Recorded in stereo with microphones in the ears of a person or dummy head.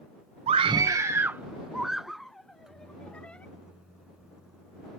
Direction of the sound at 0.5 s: 35° right (ahead or behind).